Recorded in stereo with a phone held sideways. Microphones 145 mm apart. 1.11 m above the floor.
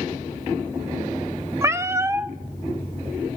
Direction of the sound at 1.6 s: 20° right (ahead or behind).